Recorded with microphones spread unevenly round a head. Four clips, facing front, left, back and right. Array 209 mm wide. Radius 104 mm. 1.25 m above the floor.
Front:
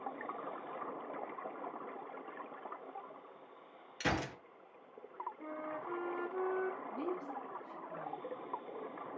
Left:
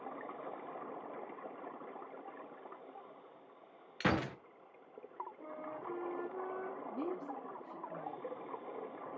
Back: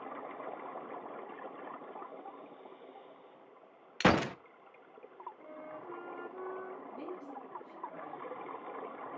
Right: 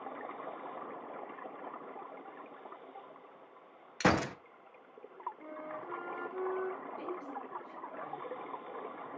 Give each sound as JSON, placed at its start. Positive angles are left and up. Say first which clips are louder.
{"t": 4.0, "sound": "a gunshot", "louder": "right 5 dB, back 9 dB", "azimuth_deg": -155, "distance_m": 0.5}
{"t": 5.4, "sound": "a flute", "louder": "right 1 dB, front 5 dB", "azimuth_deg": 0, "distance_m": 0.8}
{"t": 6.9, "sound": "a woman speaking", "louder": "left 1 dB, front 4 dB", "azimuth_deg": 75, "distance_m": 2.5}